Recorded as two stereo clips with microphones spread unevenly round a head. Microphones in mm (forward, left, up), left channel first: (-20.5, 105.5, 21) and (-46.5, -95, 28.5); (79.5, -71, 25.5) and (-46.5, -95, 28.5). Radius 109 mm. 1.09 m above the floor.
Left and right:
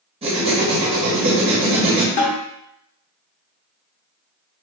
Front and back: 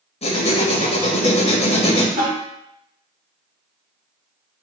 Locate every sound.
0.2 s writing: 30° right, 1.2 m
2.2 s a snare drum: 130° left, 1.7 m